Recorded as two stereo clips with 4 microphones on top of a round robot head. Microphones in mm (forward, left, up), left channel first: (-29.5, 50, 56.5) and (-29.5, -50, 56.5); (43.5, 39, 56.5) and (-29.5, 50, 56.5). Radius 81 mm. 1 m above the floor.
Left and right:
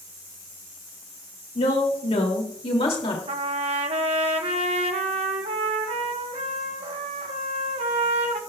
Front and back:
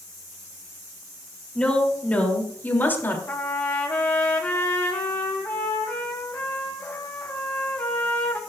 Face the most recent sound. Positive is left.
turn(degrees=-75)